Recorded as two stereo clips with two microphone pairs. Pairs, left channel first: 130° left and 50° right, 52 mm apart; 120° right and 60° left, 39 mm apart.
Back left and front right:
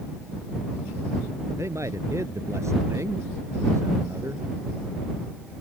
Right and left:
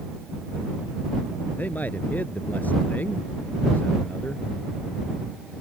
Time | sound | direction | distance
1.6 | a man speaking | 75° right | ?